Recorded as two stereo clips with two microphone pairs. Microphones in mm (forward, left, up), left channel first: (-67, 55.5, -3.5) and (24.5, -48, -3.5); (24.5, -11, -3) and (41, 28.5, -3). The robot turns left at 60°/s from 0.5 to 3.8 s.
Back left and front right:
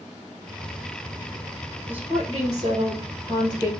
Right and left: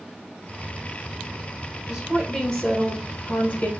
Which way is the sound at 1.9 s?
25° left.